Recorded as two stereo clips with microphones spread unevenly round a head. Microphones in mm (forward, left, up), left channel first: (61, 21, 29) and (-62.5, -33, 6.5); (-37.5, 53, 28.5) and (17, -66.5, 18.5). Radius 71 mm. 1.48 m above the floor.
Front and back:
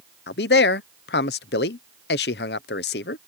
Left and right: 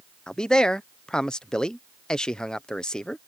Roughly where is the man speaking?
Ahead left.